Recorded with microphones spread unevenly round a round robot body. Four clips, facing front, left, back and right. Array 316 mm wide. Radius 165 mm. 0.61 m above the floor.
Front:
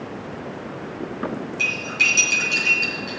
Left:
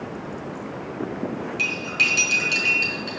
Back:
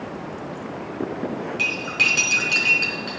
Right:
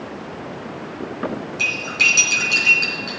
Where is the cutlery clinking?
170° right, 4.5 m.